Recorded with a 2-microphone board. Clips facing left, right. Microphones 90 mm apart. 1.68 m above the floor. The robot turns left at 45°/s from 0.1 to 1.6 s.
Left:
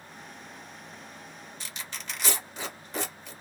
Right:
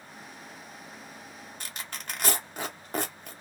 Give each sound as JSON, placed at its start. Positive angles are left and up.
{"t": 1.6, "sound": "tearing paper", "side_deg": -50, "distance_m": 0.9}